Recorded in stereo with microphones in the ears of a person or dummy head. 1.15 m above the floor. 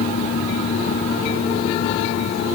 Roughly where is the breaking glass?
I don't hear breaking glass.